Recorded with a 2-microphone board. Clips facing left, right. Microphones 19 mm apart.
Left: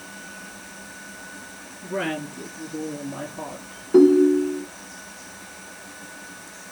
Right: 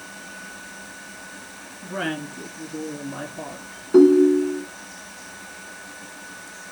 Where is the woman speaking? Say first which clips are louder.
Left 1 dB; 20° right (ahead or behind), 1.7 m; by 3.8 s 35° right (ahead or behind), 3 m.